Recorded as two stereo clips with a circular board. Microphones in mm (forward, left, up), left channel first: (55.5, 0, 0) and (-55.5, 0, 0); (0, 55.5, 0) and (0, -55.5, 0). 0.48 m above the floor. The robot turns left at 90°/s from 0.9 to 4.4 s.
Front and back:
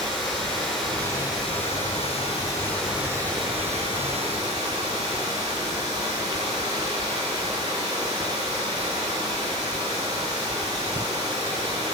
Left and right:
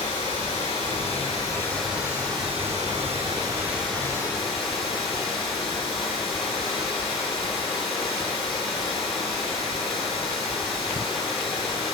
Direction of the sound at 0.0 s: 85° left.